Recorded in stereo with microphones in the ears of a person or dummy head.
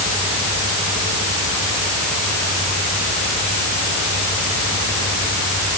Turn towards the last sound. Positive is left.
No sound to turn to.